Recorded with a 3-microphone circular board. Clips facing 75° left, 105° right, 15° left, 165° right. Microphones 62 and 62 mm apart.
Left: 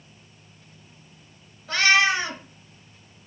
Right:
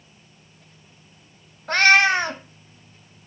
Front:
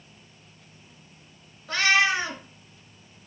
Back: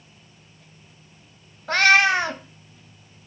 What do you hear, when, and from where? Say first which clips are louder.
1.7 s a cat meowing: right 4 dB, back 5 dB; 140° right, 0.9 m